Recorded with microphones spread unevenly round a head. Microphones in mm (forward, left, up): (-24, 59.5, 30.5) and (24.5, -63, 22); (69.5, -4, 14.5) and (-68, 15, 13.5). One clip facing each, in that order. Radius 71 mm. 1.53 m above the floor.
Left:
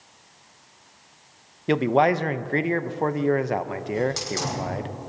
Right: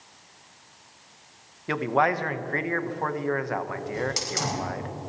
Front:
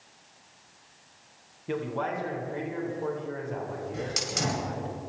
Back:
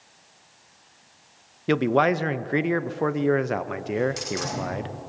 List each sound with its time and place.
1.7 s a man speaking: 175° left, 0.5 m
3.9 s a hiss: 5° left, 5.5 m